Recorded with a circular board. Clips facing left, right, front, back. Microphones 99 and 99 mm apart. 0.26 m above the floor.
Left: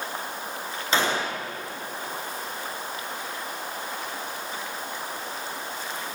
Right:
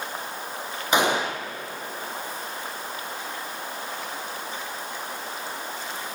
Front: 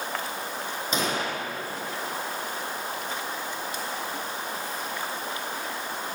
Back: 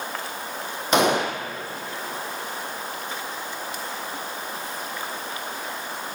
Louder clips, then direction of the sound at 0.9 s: Right 3 dB, back 9 dB; 160° right.